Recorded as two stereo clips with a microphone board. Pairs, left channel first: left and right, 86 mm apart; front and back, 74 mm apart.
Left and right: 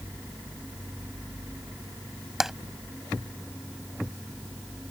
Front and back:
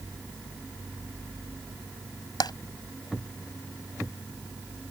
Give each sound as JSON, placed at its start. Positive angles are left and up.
{"t": 2.4, "sound": "tapping", "azimuth_deg": -5}